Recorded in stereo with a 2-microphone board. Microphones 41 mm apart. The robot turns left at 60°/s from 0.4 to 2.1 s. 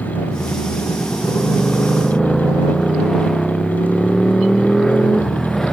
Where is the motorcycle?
115° left; by 5.7 s 15° left.